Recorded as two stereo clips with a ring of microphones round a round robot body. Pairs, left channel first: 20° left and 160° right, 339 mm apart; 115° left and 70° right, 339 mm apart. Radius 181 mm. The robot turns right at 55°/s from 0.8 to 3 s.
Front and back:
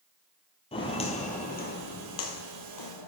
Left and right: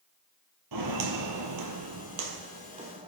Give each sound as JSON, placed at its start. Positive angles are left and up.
{"t": 0.7, "sound": "footsteps", "azimuth_deg": -50, "distance_m": 1.3}